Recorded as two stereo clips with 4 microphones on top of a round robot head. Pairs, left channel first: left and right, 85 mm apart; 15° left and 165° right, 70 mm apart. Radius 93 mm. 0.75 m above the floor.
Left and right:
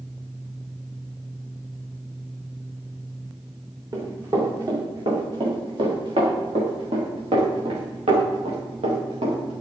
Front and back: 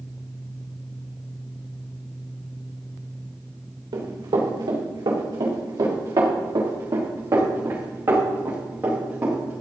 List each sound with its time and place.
3.9 s running footsteps: 145° right, 5.5 m; by 9.6 s 95° right, 7 m